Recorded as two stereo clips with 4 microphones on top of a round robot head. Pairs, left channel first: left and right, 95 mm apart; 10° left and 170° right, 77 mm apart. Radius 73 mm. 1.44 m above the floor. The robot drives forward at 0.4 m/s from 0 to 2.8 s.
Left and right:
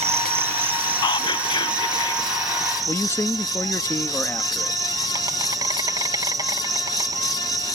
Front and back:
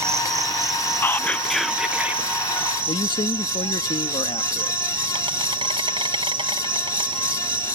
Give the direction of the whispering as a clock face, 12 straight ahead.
10 o'clock.